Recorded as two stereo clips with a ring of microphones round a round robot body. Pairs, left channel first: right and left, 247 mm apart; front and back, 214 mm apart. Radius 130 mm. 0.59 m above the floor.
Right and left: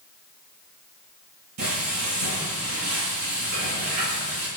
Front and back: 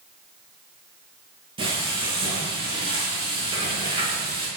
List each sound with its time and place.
1.6 s frying: 115° left, 10 m